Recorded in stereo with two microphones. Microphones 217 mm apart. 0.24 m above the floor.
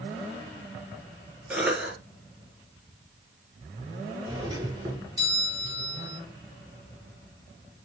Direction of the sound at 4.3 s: 15° right (ahead or behind).